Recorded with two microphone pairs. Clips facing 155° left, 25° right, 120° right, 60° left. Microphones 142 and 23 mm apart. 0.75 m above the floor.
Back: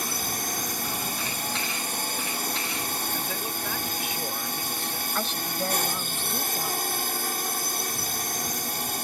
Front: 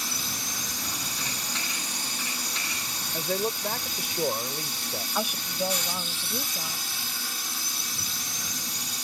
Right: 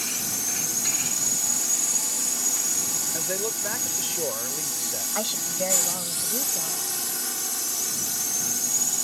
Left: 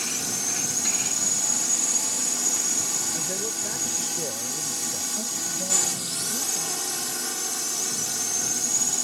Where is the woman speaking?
105° right.